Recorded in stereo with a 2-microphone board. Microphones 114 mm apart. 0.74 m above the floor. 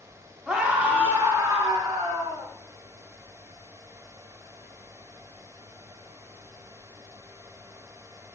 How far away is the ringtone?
No ringtone in this recording.